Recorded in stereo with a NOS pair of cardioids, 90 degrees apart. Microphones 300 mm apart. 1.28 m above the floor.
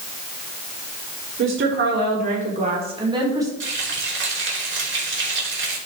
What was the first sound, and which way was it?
A woman speaking, 45° right.